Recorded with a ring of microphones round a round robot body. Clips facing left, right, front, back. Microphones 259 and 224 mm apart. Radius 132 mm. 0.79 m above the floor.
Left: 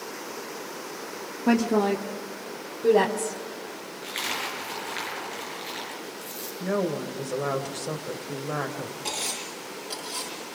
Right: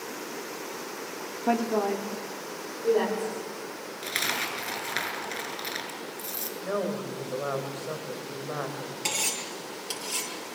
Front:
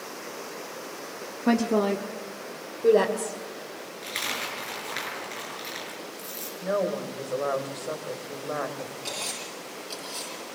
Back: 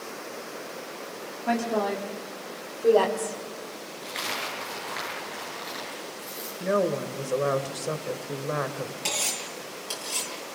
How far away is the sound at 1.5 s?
About 1.2 m.